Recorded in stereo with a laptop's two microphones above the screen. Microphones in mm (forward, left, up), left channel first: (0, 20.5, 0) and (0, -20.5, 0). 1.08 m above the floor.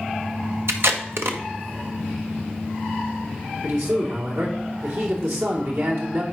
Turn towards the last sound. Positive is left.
turn(degrees=-85)